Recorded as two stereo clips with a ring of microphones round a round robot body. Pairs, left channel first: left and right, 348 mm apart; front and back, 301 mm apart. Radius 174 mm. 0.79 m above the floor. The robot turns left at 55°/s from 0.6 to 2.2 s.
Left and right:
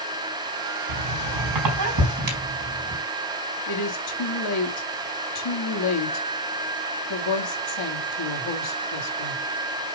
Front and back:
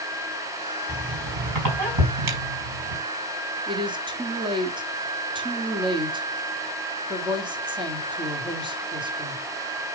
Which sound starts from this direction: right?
A squeak, at 0.9 s.